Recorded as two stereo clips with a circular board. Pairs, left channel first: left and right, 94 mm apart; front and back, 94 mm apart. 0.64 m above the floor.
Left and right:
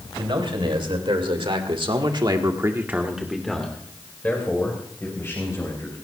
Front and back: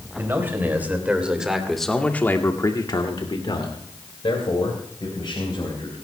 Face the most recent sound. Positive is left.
turn(degrees=30)